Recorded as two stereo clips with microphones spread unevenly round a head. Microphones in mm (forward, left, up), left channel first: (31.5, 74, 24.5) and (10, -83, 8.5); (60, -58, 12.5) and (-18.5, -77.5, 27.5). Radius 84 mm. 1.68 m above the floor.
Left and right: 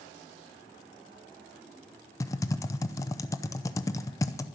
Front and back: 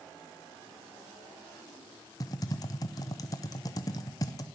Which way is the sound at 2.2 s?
45° left.